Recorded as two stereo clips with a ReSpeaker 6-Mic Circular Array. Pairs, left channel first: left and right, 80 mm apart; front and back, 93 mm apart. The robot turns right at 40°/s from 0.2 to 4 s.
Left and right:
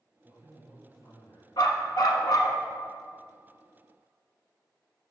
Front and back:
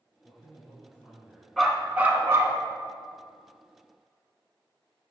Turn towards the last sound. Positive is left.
turn(degrees=-170)